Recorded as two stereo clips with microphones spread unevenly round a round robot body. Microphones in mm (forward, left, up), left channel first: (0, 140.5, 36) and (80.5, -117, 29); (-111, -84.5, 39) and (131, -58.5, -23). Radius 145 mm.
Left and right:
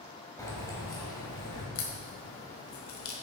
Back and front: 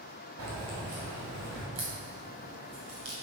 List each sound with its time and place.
0.4 s keys jangling: 30° left, 2 m
1.8 s a crack: 70° left, 1.5 m